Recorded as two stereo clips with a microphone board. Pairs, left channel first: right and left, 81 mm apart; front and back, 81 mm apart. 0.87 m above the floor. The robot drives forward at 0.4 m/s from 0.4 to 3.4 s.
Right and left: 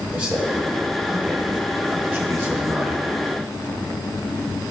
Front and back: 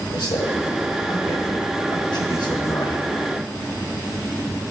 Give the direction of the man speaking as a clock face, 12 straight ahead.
11 o'clock.